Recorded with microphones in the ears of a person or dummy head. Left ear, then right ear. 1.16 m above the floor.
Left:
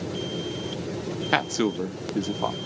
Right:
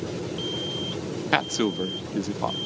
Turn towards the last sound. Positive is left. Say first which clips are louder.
# even
turn(degrees=5)  # may be behind; listen again after turning